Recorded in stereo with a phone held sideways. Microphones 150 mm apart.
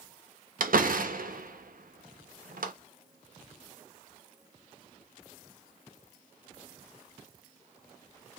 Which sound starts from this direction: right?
A door slam, at 0.6 s.